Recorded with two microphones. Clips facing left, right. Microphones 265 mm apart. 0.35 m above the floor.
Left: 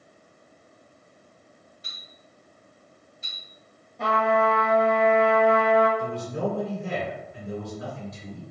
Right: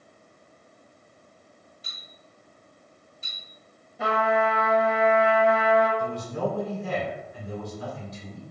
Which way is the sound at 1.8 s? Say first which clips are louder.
Even; 40° right (ahead or behind).